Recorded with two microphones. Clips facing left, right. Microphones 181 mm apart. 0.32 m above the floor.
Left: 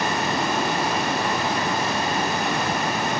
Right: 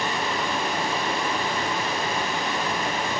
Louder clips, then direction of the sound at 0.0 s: Left 3 dB; 75° left (ahead or behind).